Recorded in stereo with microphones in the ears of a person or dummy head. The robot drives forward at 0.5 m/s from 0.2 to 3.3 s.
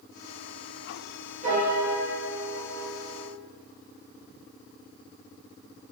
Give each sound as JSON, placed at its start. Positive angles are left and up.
{"t": 1.4, "sound": "a piano", "side_deg": -40, "distance_m": 1.2}